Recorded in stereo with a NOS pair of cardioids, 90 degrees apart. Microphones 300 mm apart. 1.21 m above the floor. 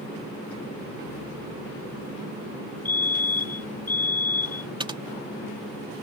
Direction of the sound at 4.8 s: 15° right.